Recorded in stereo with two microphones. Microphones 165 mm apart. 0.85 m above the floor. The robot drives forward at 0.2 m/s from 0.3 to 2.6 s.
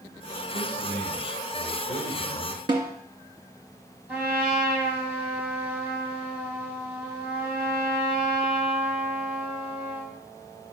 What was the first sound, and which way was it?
A man speaking, 55° left (ahead or behind).